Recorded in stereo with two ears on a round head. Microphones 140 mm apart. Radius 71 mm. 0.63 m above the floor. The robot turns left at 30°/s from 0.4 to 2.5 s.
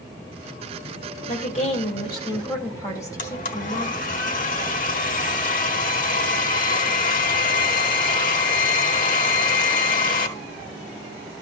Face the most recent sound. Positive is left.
turn(degrees=60)  # may be behind; listen again after turning